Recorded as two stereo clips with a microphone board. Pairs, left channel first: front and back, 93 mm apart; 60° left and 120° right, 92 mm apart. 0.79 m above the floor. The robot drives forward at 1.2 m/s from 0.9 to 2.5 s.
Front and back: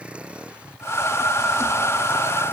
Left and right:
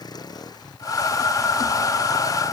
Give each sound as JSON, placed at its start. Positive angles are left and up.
{"t": 0.0, "sound": "a vehicle", "azimuth_deg": 105}